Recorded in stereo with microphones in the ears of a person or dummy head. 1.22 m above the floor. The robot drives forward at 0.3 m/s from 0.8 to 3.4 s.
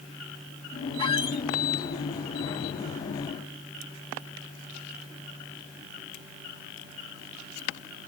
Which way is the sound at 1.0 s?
25° left (ahead or behind).